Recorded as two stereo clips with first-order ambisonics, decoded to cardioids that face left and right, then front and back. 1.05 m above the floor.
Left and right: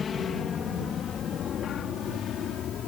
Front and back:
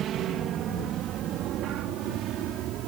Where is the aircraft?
145° left; by 2.9 s 140° left.